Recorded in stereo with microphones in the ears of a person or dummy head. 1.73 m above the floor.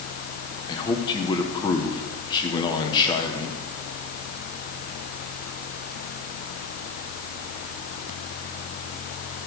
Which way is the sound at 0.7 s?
25° left (ahead or behind).